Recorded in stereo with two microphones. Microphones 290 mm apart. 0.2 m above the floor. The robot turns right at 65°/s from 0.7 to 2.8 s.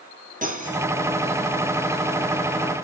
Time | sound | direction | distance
0.4 | cutlery clinking | 30° right (ahead or behind) | 2.5 m